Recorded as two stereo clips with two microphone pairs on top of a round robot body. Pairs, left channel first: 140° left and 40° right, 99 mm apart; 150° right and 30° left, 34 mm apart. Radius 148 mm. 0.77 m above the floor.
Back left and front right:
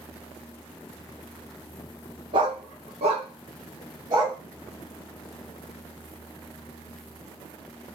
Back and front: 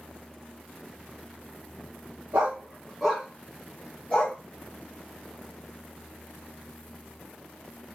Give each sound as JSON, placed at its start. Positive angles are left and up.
{"t": 2.3, "sound": "a dog barking", "azimuth_deg": -5, "distance_m": 0.5}